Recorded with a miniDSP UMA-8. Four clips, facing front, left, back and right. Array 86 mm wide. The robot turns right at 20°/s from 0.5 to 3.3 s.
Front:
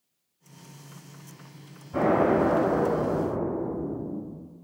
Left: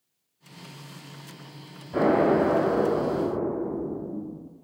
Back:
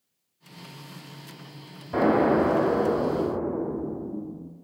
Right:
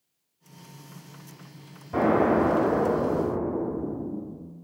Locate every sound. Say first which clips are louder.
1.9 s an explosion: left 1 dB, back 1 dB; 165° right, 1.0 m; by 4.6 s 135° right, 1.0 m